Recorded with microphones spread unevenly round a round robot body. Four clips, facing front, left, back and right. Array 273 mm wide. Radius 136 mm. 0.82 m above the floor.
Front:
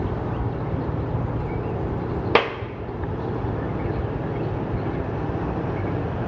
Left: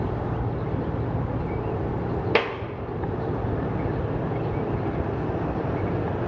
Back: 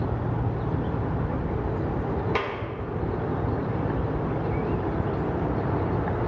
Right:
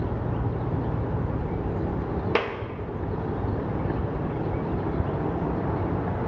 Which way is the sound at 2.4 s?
30° left.